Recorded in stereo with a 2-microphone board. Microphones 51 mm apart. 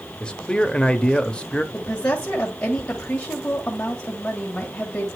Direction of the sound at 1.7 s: 20° left (ahead or behind).